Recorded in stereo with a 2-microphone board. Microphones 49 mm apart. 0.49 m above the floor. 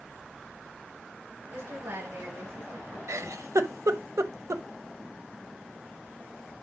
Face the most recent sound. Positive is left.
turn(degrees=-75)  # may be behind; listen again after turning